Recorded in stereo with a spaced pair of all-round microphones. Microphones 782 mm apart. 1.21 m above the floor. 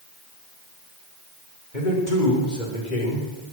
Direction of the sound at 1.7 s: 70° left (ahead or behind).